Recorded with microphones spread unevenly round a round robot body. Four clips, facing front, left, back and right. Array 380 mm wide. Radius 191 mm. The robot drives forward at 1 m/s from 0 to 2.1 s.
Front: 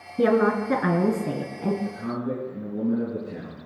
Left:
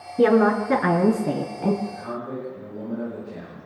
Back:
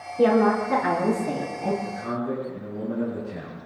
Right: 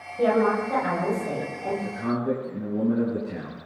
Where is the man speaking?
60° right, 6 m.